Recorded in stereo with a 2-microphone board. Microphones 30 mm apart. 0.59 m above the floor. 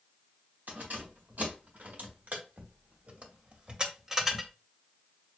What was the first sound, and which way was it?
Keys jangling, 75° right (ahead or behind).